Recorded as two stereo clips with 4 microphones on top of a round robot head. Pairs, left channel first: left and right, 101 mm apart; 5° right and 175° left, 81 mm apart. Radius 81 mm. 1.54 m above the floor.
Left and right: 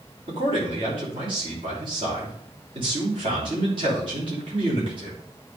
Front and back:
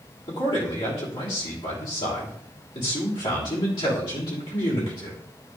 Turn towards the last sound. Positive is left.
turn(degrees=-45)